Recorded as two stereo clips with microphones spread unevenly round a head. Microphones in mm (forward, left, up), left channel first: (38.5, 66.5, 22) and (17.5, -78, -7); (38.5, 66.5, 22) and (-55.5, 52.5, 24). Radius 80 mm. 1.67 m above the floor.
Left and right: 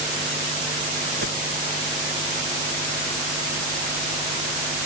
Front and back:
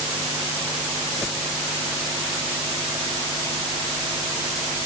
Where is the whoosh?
85° right.